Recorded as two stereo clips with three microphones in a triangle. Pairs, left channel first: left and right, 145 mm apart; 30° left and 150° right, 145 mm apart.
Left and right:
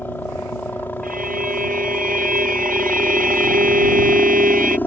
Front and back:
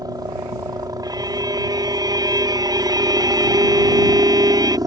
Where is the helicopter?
160° left.